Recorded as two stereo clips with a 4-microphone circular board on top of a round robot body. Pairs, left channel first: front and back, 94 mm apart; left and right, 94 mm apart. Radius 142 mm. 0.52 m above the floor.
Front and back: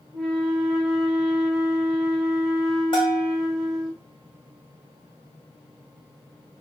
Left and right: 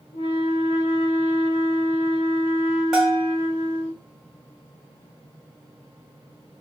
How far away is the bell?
About 2.5 m.